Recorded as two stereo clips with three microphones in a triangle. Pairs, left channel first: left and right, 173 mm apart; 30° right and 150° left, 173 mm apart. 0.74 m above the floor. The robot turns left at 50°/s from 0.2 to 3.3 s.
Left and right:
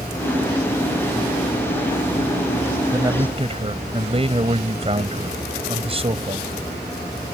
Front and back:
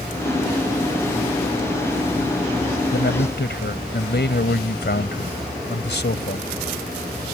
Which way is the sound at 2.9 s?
15° right.